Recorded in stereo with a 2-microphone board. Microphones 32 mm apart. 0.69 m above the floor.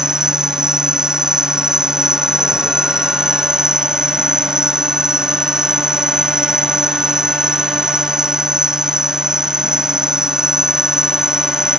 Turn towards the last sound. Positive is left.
turn(degrees=-20)  # may be behind; listen again after turning